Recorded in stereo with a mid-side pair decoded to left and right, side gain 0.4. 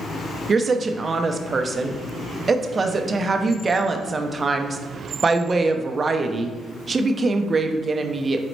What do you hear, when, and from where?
0.5 s a woman speaking: 35° right, 0.5 m